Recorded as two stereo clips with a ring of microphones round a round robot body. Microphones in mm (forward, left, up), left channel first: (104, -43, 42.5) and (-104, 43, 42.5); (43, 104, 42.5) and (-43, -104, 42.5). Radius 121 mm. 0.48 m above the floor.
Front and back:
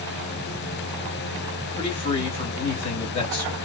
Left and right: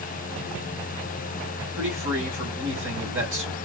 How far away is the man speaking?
About 3 m.